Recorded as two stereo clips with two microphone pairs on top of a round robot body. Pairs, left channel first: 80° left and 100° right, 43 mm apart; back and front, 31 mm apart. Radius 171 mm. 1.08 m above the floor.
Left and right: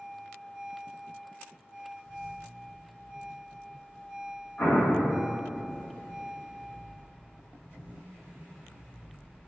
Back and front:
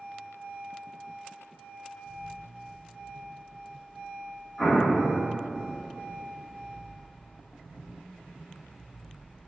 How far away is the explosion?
About 1.1 m.